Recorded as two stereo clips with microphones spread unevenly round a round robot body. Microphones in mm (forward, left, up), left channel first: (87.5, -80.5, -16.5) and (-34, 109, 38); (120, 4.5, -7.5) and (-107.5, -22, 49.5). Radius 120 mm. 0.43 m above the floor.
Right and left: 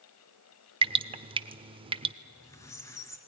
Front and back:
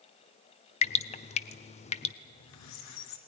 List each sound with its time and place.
0.8 s dripping: 50° left, 0.6 m
2.2 s a squeak: 20° left, 1.6 m